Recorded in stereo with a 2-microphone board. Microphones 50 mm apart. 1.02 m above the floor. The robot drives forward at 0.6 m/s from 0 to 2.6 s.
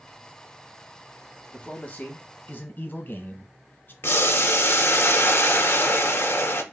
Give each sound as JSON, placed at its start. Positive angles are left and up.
{"t": 1.5, "sound": "a man speaking", "side_deg": 25, "distance_m": 1.2}
{"t": 4.0, "sound": "boiling", "side_deg": 45, "distance_m": 0.5}